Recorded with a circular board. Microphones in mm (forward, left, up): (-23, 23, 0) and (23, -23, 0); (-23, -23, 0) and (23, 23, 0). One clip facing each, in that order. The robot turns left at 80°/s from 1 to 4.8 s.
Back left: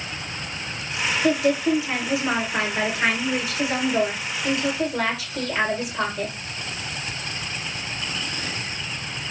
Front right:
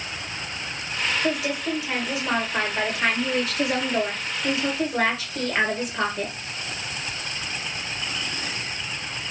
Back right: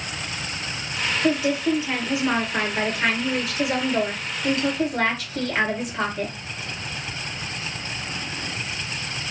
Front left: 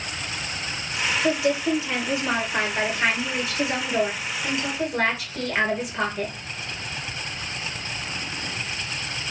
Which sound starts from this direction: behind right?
A woman speaking, at 1.2 s.